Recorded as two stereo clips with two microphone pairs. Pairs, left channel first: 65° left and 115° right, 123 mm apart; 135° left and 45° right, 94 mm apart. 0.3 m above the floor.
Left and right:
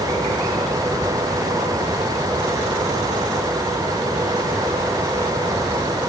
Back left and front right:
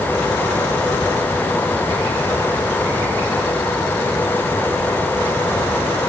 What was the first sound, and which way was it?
Only background noise.